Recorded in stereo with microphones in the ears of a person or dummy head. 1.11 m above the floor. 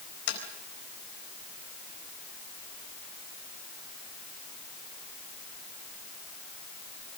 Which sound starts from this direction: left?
Tapping, at 0.3 s.